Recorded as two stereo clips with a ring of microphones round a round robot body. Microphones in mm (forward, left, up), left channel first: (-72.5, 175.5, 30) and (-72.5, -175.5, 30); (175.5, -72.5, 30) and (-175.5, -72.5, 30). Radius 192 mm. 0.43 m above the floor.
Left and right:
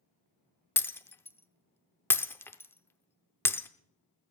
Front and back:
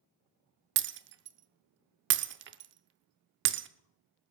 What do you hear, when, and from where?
0.8 s breaking glass: 170° left, 0.6 m